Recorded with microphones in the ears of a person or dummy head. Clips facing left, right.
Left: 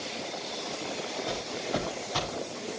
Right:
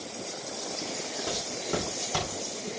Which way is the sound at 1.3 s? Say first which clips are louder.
Right 1 dB; 70° right (ahead or behind).